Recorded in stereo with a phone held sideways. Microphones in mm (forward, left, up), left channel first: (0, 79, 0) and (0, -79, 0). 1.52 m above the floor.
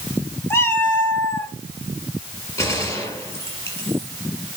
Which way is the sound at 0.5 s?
15° left (ahead or behind).